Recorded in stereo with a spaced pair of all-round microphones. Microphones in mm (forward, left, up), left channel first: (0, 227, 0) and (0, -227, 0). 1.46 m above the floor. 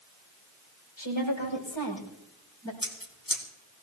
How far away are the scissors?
About 2 m.